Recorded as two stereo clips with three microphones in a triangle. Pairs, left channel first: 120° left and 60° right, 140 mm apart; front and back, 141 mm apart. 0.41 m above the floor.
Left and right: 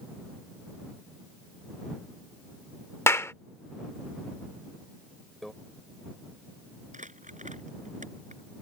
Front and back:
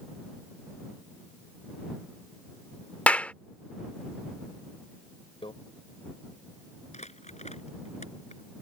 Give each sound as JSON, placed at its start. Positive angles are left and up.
{"t": 3.1, "sound": "a clap", "azimuth_deg": 70}
{"t": 5.4, "sound": "a microwave", "azimuth_deg": 30}
{"t": 6.9, "sound": "crumpling", "azimuth_deg": -35}